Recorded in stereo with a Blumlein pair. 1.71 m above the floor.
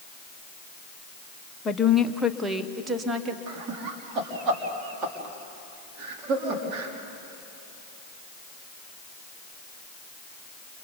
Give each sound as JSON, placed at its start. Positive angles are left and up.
{"t": 1.6, "sound": "a woman speaking", "azimuth_deg": 15, "distance_m": 1.1}
{"t": 3.5, "sound": "laughter", "azimuth_deg": -30, "distance_m": 4.0}